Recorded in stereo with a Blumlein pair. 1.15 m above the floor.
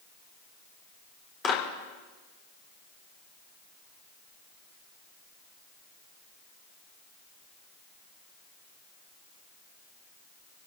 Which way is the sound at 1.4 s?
25° left.